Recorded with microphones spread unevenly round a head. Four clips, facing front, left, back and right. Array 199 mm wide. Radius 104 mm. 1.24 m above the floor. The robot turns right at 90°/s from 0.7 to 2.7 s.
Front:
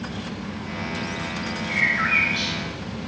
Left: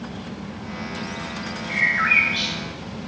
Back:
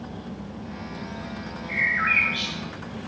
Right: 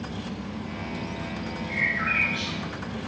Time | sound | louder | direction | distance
1.7 | a bird | left 7 dB, even | 140° left | 2.5 m